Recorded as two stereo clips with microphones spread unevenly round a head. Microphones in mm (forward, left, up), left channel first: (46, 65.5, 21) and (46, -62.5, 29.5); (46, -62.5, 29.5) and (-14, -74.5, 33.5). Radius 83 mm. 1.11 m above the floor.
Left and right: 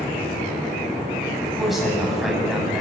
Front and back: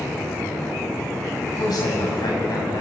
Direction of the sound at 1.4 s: Straight ahead.